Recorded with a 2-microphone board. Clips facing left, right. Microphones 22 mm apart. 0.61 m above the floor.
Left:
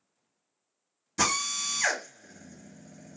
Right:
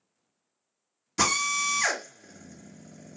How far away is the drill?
About 1.6 m.